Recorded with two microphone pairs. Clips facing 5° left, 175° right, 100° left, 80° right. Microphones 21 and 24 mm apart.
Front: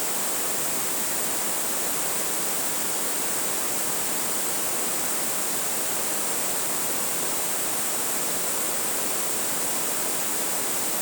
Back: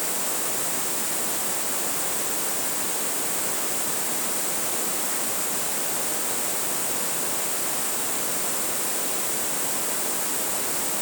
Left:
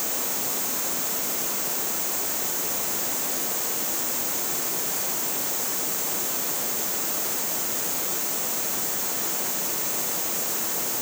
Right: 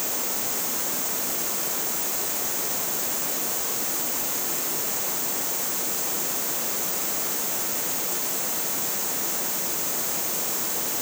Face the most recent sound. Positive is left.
No sound to turn to.